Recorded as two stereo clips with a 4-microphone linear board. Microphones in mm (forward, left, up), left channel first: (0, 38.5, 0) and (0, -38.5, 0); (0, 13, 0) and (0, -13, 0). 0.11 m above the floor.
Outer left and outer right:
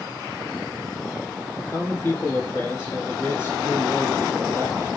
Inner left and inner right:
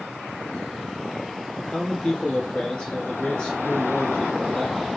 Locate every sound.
1.6 s a man speaking: 35° left (ahead or behind), 1.3 m